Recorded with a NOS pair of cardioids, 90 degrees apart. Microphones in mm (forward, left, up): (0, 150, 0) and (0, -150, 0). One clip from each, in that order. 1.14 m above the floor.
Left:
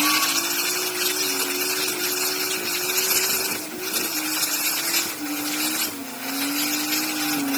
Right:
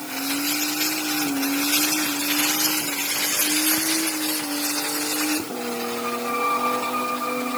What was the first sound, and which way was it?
Only background noise.